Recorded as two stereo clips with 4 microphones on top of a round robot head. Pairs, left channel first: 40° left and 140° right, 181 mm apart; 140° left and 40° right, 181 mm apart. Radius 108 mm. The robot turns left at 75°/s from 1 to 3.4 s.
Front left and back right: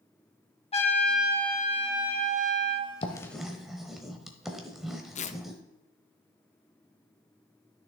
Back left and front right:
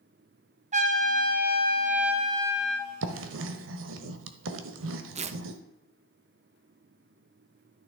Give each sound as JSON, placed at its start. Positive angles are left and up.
{"t": 0.7, "sound": "a trumpet", "azimuth_deg": -5, "distance_m": 1.2}
{"t": 3.0, "sound": "writing", "azimuth_deg": -20, "distance_m": 0.8}
{"t": 5.2, "sound": "tearing paper", "azimuth_deg": 0, "distance_m": 0.6}